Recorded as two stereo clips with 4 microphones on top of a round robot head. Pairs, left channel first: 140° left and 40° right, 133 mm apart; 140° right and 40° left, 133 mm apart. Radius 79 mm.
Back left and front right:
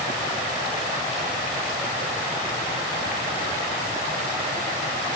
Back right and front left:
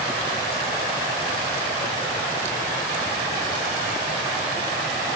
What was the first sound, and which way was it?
Only background noise.